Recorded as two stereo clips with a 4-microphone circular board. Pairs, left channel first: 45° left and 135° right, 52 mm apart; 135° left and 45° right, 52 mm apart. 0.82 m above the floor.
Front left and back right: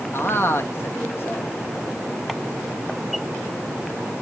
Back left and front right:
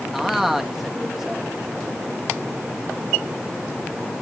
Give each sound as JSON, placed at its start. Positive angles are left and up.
{"t": 0.1, "sound": "a man speaking", "azimuth_deg": 45, "distance_m": 1.3}